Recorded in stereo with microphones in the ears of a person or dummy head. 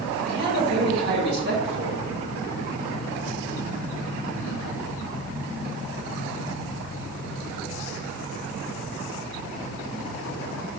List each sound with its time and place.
0.2 s a man speaking: 65° right (ahead or behind), 3 m